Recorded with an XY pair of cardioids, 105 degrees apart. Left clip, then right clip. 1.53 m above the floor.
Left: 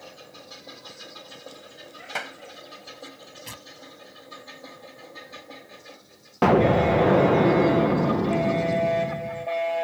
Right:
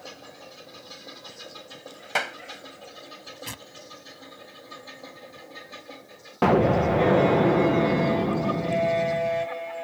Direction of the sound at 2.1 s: 35° right.